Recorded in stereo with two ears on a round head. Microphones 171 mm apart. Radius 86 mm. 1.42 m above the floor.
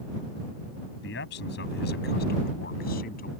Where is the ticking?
I don't hear ticking.